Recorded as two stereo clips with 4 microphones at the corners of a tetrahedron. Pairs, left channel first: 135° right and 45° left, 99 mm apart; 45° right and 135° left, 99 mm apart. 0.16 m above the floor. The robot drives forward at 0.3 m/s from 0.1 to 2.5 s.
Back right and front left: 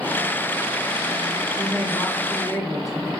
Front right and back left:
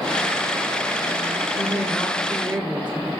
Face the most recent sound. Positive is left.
turn(degrees=-160)